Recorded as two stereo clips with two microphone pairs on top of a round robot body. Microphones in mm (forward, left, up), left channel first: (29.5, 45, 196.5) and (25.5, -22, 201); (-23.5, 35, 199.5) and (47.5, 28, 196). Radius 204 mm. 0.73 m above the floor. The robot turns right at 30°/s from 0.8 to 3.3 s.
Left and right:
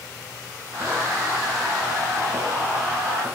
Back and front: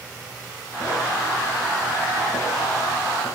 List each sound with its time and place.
Only background noise.